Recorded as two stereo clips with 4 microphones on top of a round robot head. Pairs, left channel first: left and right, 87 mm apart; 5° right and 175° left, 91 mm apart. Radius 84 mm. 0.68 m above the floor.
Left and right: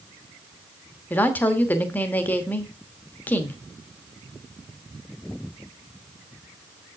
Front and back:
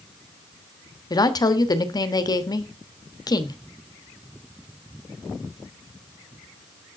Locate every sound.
1.1 s a woman speaking: 25° left, 1.2 m